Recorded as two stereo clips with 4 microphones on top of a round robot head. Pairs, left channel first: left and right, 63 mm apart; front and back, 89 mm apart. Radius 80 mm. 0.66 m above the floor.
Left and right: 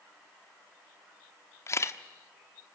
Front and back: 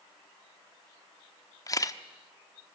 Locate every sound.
1.7 s a camera shutter: 50° left, 0.9 m